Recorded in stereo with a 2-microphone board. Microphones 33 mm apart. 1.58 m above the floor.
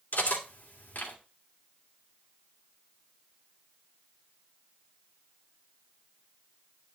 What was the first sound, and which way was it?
Cutlery clinking, 65° left (ahead or behind).